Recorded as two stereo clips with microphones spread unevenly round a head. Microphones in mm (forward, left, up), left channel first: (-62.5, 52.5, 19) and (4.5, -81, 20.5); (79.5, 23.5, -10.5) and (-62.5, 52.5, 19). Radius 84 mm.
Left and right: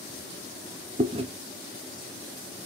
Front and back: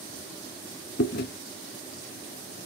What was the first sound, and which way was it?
Chewing, 5° right.